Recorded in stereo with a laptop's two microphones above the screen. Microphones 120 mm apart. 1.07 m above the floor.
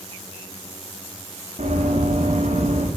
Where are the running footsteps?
75° right (ahead or behind), 5.5 m; by 2.9 s 65° right (ahead or behind), 5.5 m.